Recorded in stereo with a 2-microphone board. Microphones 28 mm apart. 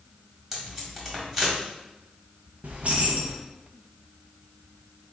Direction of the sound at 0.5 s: 5° right (ahead or behind).